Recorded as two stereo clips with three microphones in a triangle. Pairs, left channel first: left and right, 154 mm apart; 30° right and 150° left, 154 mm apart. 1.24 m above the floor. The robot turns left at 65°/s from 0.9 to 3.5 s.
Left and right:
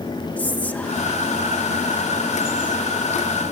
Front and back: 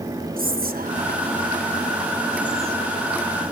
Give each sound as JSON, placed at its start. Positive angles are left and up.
{"t": 0.4, "sound": "whispering", "azimuth_deg": 170, "distance_m": 1.1}